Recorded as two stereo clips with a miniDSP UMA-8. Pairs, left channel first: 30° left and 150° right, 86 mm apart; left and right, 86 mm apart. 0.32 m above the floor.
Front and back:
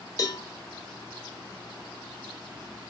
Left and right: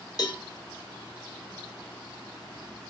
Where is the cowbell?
65° left, 0.7 m.